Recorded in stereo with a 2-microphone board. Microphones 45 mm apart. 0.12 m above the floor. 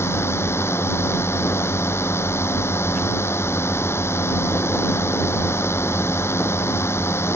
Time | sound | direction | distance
0.0 | a drone | 70° left (ahead or behind) | ?